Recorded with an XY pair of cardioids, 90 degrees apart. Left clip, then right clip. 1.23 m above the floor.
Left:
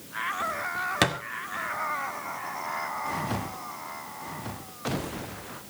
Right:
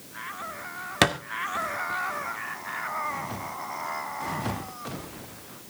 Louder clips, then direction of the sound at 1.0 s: Right 4 dB; 25° right.